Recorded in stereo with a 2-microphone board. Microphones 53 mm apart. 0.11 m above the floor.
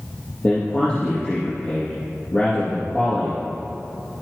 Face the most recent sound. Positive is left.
turn(degrees=30)  # may be behind; listen again after turning